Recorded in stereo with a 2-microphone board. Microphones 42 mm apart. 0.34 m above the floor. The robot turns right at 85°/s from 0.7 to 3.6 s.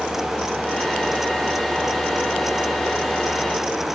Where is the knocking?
I don't hear knocking.